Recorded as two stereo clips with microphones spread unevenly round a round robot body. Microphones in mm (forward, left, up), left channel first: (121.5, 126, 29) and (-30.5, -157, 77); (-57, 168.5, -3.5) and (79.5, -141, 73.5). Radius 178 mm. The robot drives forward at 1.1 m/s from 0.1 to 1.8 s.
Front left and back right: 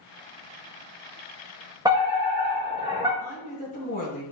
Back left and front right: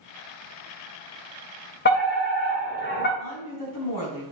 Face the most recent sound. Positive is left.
turn(degrees=130)